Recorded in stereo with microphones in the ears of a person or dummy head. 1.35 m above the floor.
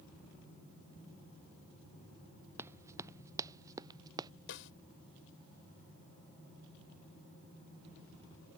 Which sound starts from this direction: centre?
Running footsteps, at 2.6 s.